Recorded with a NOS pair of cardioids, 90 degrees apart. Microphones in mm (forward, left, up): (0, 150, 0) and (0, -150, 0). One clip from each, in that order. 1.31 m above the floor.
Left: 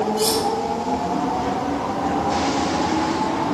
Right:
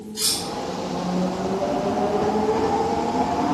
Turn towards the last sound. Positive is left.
turn(degrees=-55)